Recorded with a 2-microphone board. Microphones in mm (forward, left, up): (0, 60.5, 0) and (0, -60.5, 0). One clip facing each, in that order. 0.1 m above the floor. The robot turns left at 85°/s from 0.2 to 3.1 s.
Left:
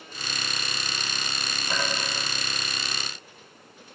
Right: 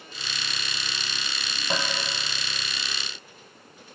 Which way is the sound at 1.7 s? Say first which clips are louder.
Right 1 dB; 30° right (ahead or behind).